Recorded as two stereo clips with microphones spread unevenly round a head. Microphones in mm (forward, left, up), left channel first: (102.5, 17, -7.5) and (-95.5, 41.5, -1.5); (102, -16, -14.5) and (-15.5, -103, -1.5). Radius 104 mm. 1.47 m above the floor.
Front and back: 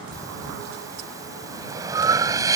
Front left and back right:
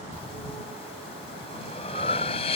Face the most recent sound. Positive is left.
turn(degrees=100)